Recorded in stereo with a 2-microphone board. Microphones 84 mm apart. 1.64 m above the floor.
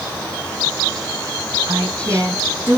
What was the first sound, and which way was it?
A woman speaking, 30° right (ahead or behind).